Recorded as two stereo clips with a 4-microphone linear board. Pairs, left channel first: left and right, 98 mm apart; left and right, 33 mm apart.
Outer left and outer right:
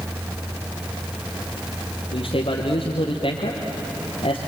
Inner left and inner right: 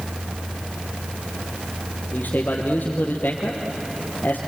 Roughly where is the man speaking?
Left.